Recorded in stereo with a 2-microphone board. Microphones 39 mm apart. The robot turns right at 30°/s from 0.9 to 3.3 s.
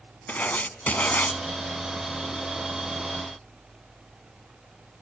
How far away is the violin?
I don't hear a violin.